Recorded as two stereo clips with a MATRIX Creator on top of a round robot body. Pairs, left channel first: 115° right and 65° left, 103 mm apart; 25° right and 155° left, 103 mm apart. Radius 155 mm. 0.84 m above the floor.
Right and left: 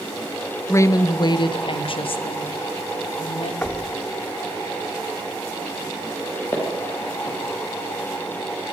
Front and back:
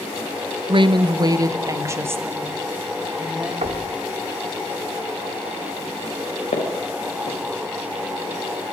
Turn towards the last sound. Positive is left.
turn(degrees=-50)